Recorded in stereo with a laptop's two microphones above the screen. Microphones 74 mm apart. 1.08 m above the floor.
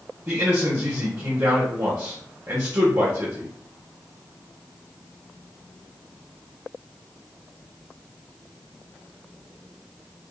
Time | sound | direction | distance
0.3 | a man speaking | 35° right (ahead or behind) | 0.9 m